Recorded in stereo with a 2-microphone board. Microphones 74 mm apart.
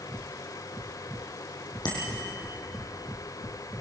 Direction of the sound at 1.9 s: 80° left.